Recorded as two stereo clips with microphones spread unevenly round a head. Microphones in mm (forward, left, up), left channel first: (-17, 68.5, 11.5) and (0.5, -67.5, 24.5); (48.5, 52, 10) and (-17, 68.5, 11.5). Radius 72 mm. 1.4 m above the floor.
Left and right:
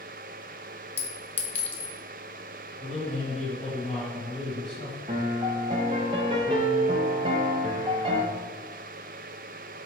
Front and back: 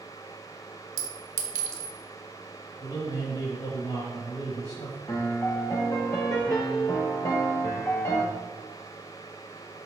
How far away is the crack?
No crack in this recording.